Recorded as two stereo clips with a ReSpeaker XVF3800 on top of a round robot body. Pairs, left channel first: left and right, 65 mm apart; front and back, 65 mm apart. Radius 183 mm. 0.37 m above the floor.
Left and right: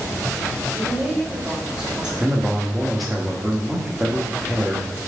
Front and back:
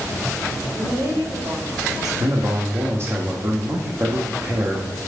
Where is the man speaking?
175° right, 1.2 m.